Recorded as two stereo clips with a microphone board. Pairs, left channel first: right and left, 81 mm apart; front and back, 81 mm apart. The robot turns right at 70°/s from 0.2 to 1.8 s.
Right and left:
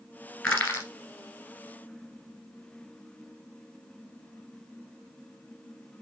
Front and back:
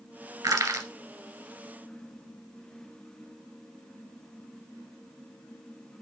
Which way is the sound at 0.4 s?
165° right.